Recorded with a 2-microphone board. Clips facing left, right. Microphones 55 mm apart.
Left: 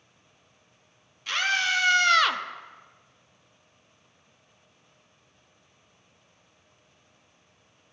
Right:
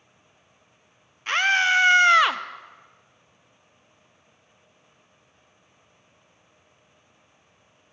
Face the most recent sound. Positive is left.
turn(degrees=-15)  # may be behind; listen again after turning